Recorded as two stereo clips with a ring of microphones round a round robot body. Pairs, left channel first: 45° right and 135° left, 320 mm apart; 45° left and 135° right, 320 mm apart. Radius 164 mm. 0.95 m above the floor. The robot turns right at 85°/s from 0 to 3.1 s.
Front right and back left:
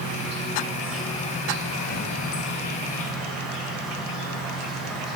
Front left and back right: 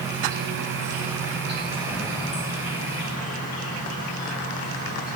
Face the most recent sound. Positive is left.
turn(degrees=45)